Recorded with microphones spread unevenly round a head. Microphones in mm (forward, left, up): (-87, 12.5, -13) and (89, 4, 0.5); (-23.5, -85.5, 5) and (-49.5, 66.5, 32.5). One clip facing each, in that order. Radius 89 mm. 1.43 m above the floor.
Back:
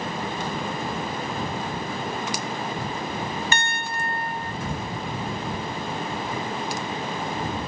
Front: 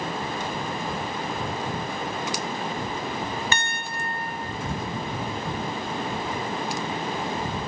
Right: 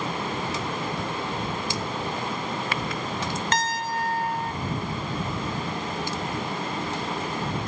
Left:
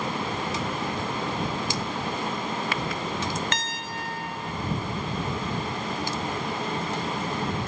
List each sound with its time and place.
3.5 s a piano: 30° right